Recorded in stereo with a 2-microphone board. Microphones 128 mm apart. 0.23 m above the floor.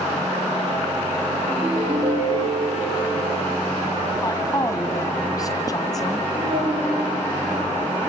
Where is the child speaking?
50° right (ahead or behind), 7 m.